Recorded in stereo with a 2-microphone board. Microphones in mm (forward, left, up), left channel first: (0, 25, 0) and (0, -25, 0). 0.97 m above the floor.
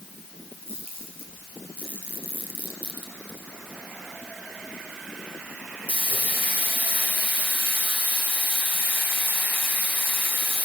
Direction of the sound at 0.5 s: 40° right (ahead or behind).